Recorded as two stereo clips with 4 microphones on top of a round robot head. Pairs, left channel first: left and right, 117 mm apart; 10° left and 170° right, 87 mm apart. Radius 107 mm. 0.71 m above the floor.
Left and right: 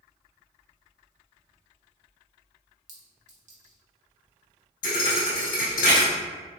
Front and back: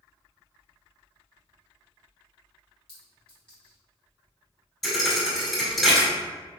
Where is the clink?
70° right, 1.2 m.